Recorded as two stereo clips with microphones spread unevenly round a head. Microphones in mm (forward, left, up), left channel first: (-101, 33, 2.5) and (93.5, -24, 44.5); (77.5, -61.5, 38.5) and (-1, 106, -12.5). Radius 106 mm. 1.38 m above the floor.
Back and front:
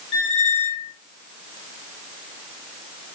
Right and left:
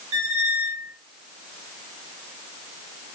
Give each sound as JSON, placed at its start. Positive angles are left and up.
{"t": 0.1, "sound": "a squeak", "azimuth_deg": 130, "distance_m": 2.5}